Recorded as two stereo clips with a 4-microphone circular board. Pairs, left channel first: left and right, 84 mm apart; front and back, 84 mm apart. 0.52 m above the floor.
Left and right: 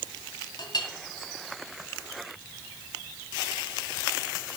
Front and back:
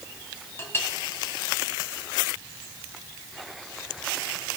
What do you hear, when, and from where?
0.6 s a clink: 60° left, 1.9 m